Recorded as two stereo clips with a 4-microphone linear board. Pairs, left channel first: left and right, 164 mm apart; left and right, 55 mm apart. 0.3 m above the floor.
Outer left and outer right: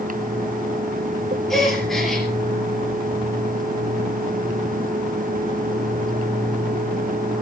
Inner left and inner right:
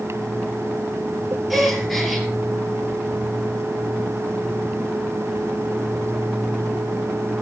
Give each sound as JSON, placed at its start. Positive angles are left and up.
{"t": 1.5, "sound": "a gasp", "side_deg": 0, "distance_m": 4.0}